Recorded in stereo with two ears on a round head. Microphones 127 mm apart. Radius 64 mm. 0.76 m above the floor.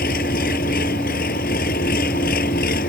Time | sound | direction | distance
0.0 | an engine running | 65° left (ahead or behind) | ?